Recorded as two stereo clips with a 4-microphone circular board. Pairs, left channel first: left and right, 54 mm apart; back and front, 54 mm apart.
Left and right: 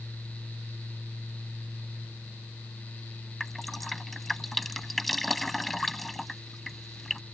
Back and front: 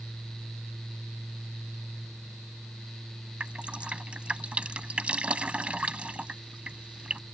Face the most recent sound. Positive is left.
turn(degrees=5)